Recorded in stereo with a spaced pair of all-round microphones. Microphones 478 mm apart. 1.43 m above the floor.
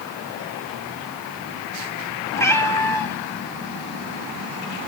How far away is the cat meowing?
About 0.8 m.